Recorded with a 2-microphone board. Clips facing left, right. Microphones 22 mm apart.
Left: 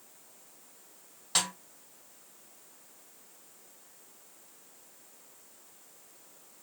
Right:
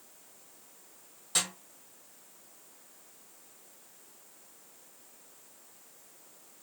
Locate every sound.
1.4 s a snare drum: 30° left (ahead or behind), 2 m